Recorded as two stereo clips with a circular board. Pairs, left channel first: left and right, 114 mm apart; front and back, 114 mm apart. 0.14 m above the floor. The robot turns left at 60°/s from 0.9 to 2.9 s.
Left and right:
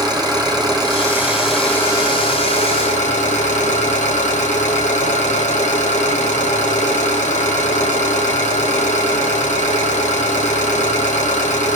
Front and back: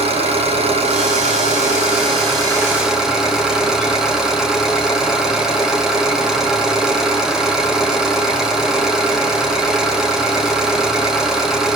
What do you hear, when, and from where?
0.0 s an engine running: 145° right, 5.5 m; by 11.8 s 95° left, 5.5 m